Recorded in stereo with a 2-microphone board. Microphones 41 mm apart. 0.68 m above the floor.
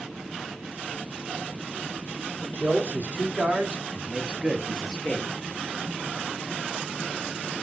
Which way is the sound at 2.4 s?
45° right (ahead or behind).